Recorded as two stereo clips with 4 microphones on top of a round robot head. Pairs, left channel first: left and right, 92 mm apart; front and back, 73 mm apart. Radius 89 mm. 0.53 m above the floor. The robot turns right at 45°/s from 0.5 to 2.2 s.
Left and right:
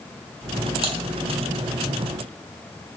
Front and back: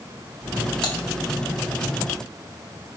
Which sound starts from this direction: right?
Typing on a keyboard, at 0.8 s.